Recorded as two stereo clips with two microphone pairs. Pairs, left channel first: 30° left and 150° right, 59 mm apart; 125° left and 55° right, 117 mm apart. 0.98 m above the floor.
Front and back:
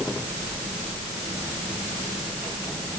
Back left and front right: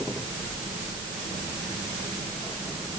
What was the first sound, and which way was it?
Only background noise.